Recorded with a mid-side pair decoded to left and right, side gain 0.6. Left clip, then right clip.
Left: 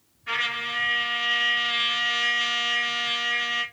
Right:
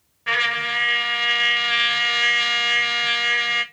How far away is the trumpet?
About 1.0 m.